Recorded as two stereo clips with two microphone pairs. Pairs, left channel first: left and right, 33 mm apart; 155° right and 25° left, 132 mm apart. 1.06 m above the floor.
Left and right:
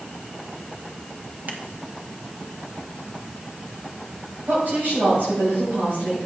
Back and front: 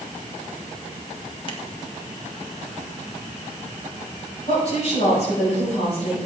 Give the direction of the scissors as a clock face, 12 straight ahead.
4 o'clock.